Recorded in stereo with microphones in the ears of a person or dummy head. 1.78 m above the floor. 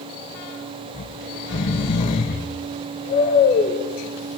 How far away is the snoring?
About 1.6 m.